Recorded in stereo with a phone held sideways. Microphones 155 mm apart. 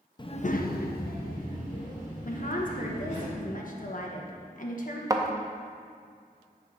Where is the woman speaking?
60° left (ahead or behind), 0.9 m.